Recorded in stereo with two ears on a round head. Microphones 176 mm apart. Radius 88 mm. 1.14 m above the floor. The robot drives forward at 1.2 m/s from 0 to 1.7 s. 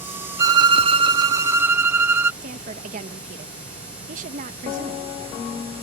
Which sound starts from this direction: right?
A woman speaking, at 2.4 s.